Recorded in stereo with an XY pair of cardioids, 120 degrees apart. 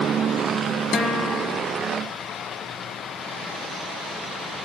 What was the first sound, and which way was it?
A guitar, 60° left.